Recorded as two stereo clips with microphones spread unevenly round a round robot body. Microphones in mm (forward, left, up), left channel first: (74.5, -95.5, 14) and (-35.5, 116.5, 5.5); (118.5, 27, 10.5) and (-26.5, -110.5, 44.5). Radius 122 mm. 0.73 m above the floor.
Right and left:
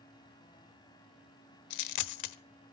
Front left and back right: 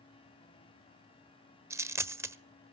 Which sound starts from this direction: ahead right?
A dropped coin, at 1.7 s.